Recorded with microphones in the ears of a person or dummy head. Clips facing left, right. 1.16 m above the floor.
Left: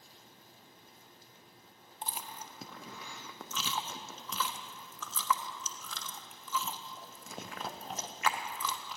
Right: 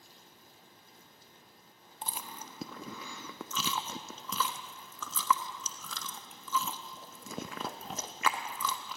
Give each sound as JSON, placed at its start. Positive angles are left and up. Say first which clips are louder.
{"t": 2.0, "sound": "chewing", "louder": "even", "side_deg": -70, "distance_m": 0.6}